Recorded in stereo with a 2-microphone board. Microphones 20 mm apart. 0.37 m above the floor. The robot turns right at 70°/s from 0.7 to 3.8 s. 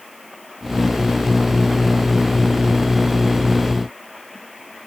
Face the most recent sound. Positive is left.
No sound to turn to.